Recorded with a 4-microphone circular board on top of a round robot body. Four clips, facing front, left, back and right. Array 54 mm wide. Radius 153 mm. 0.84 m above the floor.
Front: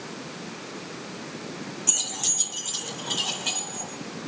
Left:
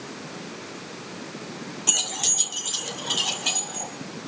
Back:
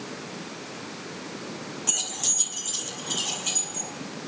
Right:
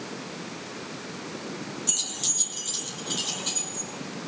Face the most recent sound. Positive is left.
turn(degrees=70)